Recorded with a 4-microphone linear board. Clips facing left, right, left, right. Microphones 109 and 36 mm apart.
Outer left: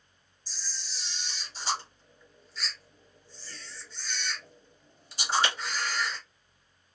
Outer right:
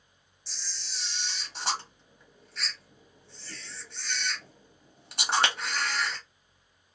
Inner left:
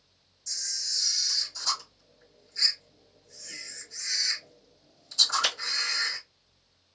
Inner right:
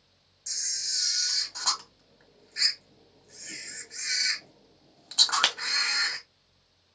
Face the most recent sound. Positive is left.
turn(degrees=-60)  # may be behind; listen again after turning